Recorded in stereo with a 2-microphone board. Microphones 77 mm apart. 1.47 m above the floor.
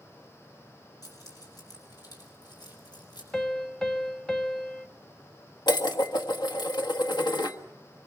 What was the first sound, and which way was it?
Keys jangling, 55° left (ahead or behind).